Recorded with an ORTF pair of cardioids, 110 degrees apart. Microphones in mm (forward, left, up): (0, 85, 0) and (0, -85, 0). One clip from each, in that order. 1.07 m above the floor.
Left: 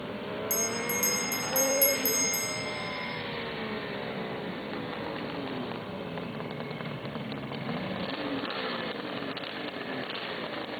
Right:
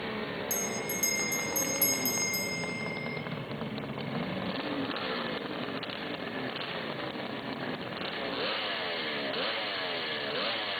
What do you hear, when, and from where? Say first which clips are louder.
0.5 s a bell: left 5 dB; 15° left, 1.1 m